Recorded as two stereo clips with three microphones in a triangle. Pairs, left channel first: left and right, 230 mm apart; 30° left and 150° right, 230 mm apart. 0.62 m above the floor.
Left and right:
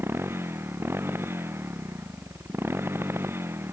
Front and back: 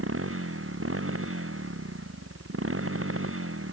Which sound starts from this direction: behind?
A motorcycle, at 0.0 s.